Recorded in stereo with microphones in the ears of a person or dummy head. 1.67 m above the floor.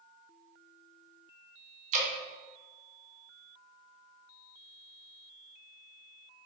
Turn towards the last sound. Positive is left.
turn(degrees=-50)  # may be behind; listen again after turning